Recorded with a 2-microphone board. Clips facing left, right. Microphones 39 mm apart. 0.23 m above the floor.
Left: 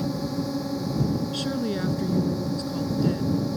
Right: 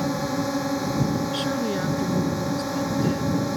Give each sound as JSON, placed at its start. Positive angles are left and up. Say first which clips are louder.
{"t": 0.0, "sound": "a drone", "louder": "right 3 dB", "side_deg": -65}
{"t": 1.3, "sound": "a woman speaking", "louder": "right 2 dB", "side_deg": -15}